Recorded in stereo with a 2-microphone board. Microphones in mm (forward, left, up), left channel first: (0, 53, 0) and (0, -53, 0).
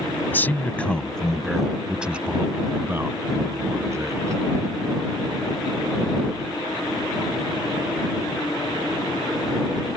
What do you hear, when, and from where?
0.3 s a man speaking: 20° left (ahead or behind); by 4.4 s 30° right (ahead or behind)